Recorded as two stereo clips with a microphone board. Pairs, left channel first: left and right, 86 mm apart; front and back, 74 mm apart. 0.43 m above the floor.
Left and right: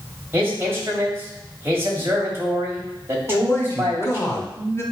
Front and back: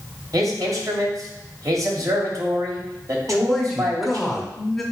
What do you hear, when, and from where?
0.3 s a man speaking: 150° right, 2.5 m
3.3 s a man speaking: 90° left, 1.4 m